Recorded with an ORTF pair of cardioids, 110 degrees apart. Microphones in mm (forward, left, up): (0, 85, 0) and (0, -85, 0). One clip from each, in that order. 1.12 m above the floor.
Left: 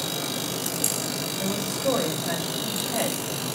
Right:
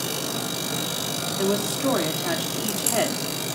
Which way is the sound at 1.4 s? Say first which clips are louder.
Right 6 dB; 70° right.